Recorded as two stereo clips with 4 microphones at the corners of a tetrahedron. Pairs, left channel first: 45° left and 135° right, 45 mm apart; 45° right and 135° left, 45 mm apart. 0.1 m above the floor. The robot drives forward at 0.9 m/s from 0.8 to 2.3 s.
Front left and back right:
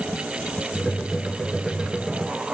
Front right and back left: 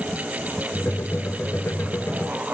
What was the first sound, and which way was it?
Only background noise.